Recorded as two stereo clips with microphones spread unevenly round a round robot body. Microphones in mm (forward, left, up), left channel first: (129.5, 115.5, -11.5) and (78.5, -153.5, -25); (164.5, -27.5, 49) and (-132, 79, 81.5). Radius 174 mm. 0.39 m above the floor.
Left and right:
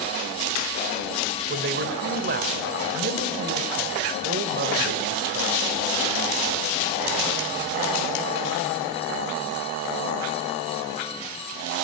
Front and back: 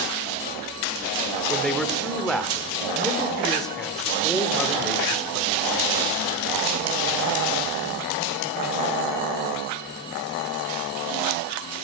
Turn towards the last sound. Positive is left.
turn(degrees=-100)